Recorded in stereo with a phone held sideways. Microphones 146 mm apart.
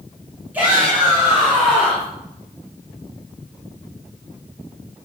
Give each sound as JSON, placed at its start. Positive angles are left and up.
{"t": 0.5, "sound": "a shout", "side_deg": -10, "distance_m": 6.0}